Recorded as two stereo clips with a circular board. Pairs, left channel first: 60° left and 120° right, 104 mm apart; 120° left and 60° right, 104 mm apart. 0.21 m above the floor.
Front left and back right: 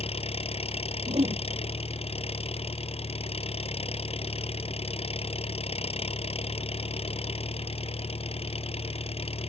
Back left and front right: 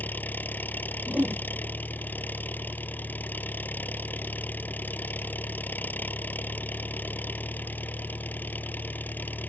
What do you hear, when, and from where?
0.0 s an engine running: 45° left
1.1 s a whoosh: 140° right